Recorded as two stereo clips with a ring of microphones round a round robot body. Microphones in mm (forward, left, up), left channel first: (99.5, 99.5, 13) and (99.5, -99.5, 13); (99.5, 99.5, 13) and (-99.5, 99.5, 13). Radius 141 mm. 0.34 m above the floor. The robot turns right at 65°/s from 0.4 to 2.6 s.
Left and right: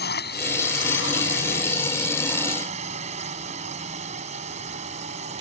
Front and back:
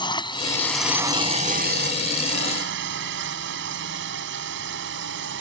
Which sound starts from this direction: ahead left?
A drone, at 0.0 s.